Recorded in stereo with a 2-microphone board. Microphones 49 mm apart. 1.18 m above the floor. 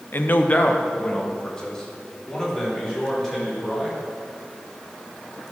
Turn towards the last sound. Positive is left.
turn(degrees=10)  # may be behind; listen again after turning